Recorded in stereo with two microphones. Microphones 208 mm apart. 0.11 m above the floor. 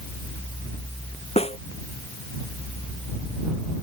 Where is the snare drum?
30° left (ahead or behind).